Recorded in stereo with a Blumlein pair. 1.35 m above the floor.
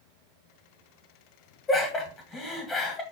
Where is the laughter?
20° left, 1.2 m.